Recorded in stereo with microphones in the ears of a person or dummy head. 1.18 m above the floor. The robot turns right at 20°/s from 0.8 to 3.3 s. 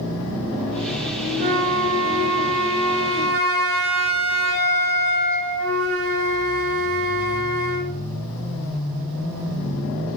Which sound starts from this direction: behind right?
A flute, at 1.4 s.